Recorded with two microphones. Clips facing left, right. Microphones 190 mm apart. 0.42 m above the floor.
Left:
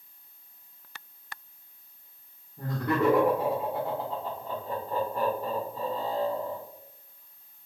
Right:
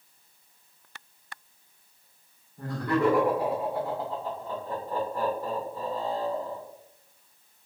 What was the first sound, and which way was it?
Laughter, 25° left (ahead or behind).